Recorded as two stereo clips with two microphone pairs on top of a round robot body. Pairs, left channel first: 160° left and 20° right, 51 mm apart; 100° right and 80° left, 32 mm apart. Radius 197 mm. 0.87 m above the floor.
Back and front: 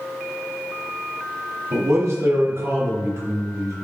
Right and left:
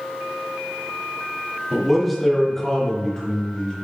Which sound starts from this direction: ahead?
A man speaking, at 1.7 s.